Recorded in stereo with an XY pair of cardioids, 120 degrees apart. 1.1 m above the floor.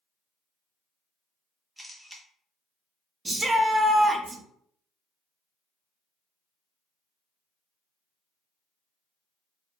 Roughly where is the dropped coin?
I don't hear a dropped coin.